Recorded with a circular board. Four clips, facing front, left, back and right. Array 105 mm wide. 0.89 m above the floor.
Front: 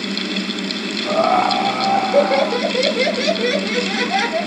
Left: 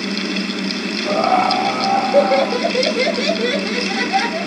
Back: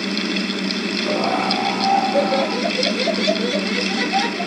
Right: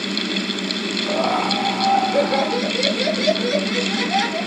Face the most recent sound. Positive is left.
turn(degrees=15)